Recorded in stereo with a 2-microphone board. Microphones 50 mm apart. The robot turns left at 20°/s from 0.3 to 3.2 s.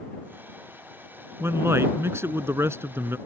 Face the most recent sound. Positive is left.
turn(degrees=-110)